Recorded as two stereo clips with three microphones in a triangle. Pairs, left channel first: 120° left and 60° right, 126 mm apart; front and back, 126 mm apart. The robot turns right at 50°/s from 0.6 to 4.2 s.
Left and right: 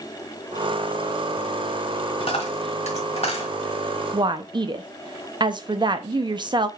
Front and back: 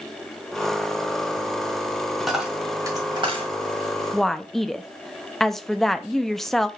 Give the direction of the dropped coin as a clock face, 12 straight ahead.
9 o'clock.